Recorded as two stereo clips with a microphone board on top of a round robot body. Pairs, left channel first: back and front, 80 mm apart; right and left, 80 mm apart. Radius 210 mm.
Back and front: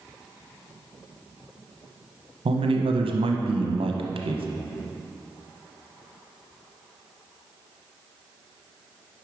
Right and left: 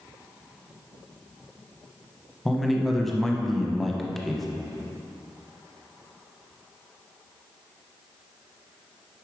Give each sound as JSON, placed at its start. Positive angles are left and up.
{"t": 2.5, "sound": "a man speaking", "azimuth_deg": 0, "distance_m": 0.9}